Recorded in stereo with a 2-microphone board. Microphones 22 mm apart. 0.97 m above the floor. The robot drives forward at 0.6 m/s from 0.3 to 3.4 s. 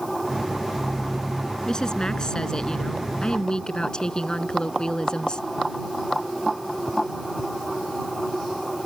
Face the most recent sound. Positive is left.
turn(degrees=35)  # may be behind; listen again after turning